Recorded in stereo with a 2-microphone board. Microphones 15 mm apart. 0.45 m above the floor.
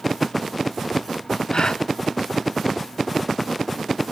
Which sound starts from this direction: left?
A gasp, at 1.5 s.